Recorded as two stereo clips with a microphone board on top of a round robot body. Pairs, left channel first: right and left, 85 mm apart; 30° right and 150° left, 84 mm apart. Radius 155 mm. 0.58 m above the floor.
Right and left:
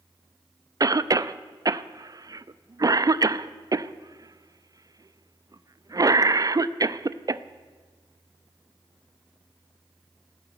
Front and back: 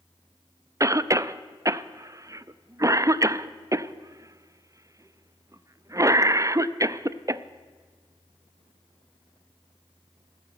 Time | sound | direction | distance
0.8 | a cough | 115° left | 0.8 m